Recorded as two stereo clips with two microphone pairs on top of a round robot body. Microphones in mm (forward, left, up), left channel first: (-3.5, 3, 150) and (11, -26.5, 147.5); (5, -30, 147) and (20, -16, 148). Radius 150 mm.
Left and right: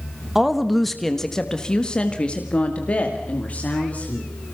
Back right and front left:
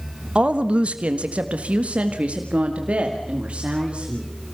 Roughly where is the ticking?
I don't hear ticking.